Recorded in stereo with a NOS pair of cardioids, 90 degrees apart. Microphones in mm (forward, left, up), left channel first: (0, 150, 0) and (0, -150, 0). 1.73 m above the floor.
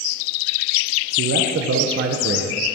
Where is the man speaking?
45° right, 1.6 m.